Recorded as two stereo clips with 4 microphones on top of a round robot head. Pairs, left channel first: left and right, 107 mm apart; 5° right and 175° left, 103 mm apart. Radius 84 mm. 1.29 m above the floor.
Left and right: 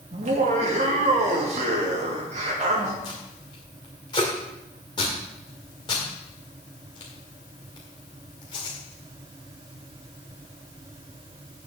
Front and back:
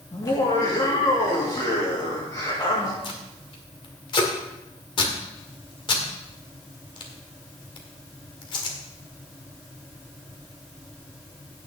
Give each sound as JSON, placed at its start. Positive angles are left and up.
{"t": 0.1, "sound": "laughter", "azimuth_deg": -70, "distance_m": 3.0}
{"t": 3.0, "sound": "tape being pulled", "azimuth_deg": 30, "distance_m": 1.8}